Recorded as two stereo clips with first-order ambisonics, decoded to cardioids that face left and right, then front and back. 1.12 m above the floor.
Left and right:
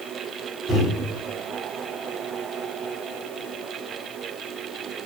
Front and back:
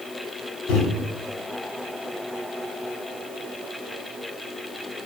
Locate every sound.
0.7 s a microwave: 5° right, 1.1 m